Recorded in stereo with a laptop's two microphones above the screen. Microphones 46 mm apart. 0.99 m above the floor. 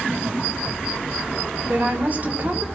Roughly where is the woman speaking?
Right.